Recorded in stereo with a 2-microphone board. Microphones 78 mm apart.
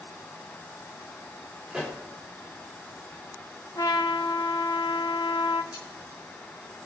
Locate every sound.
1.7 s a pop: 5° right (ahead or behind), 3 m
3.8 s a trumpet: 55° left (ahead or behind), 0.7 m
5.7 s cutlery clinking: 65° left (ahead or behind), 1.9 m